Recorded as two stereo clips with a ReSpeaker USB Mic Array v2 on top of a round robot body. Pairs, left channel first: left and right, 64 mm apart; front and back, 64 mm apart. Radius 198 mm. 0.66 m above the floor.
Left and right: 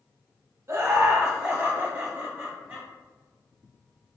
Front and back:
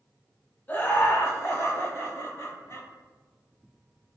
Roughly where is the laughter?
Ahead right.